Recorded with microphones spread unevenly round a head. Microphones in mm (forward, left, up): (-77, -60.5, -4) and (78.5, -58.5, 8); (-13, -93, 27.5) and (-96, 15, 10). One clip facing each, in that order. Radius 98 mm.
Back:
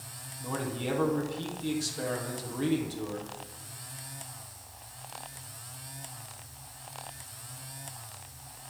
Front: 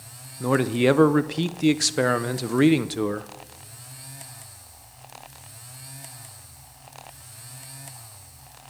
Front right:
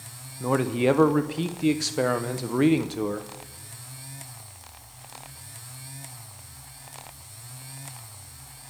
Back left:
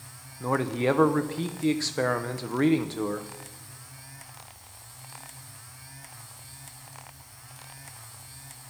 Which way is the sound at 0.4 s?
30° left.